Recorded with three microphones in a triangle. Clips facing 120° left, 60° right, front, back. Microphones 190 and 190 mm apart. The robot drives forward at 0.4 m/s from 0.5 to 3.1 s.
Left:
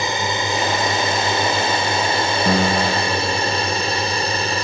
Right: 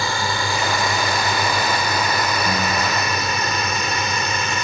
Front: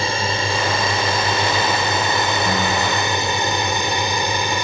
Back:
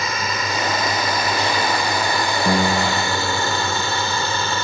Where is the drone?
55° left; by 4.6 s 70° left.